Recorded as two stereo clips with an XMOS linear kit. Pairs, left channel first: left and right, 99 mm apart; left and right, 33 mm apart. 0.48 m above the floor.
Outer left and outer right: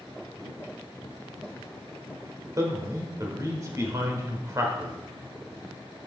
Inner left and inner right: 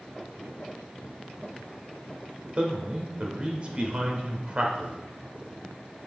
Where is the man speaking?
35° right (ahead or behind), 1.5 m.